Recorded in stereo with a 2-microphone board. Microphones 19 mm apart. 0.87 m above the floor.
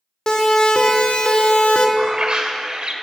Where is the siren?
45° left (ahead or behind), 2 m; by 1.9 s 85° left, 1.5 m.